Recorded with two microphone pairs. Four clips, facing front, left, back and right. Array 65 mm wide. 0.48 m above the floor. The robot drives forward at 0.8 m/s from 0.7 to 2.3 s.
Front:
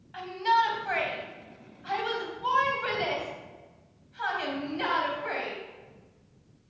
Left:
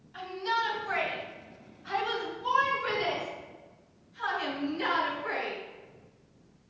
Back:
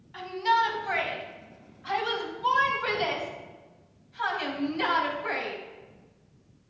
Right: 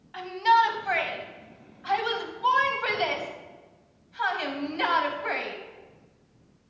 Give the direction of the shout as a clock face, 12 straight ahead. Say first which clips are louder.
Right 10 dB, even; 2 o'clock.